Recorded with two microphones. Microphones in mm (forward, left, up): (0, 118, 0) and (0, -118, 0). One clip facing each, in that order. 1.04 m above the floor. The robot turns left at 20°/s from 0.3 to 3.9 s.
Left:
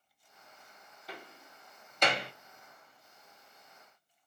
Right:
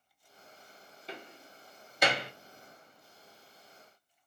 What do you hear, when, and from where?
1.1 s a door slam: 25° right (ahead or behind), 0.7 m; by 2.3 s 5° right (ahead or behind), 0.7 m